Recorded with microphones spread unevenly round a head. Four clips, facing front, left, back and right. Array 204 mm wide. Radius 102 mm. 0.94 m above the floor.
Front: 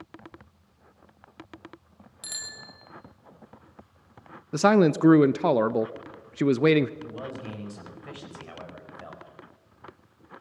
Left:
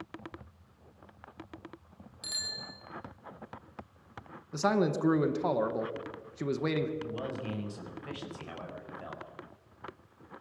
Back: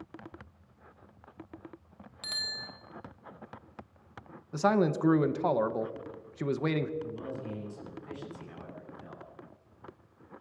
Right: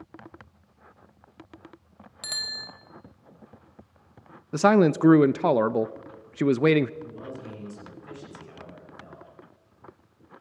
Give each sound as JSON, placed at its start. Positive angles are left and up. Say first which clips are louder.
{"t": 2.2, "sound": "a bicycle bell", "louder": "right 5 dB, back 2 dB", "azimuth_deg": -95, "distance_m": 3.0}
{"t": 4.5, "sound": "a man speaking", "louder": "right 9 dB, front 7 dB", "azimuth_deg": -50, "distance_m": 0.6}
{"t": 7.0, "sound": "a man speaking", "louder": "left 2 dB, front 1 dB", "azimuth_deg": 30, "distance_m": 6.0}